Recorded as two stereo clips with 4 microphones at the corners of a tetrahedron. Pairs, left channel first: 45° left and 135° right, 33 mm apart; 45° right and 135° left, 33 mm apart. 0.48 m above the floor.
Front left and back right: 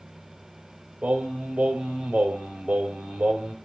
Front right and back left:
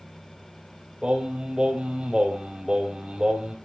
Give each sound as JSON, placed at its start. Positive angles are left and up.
{"t": 1.0, "sound": "singing", "azimuth_deg": -165, "distance_m": 3.0}